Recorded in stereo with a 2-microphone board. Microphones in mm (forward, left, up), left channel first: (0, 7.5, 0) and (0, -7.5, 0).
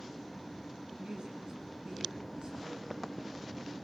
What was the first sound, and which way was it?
A woman speaking, 75° right (ahead or behind).